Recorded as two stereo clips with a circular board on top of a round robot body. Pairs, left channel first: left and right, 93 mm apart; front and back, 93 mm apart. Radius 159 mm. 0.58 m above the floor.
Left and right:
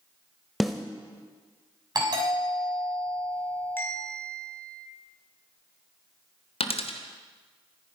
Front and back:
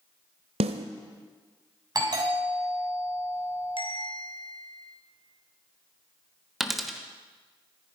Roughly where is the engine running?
No engine running in this recording.